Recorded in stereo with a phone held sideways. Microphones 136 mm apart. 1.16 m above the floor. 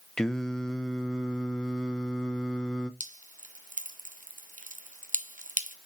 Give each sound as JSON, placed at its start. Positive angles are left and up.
{"t": 0.2, "sound": "singing", "side_deg": 5, "distance_m": 0.6}
{"t": 3.0, "sound": "dripping", "side_deg": -70, "distance_m": 0.7}